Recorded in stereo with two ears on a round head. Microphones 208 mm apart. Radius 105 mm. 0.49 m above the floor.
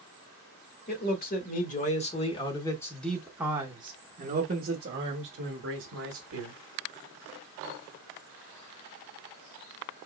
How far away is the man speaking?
About 1.7 m.